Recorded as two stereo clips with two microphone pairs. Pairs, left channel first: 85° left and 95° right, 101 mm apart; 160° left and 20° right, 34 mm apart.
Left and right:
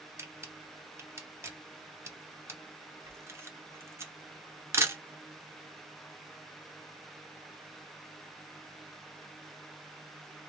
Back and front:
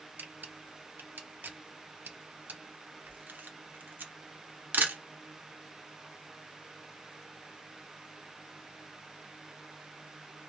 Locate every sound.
0.2 s a camera shutter: 30° right, 0.7 m